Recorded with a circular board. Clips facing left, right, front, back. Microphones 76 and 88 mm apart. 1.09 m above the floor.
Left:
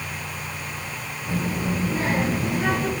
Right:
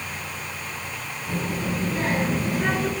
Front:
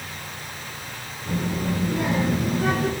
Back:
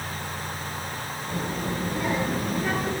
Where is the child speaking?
10° left, 9 m; by 2.9 s 5° left, 10 m.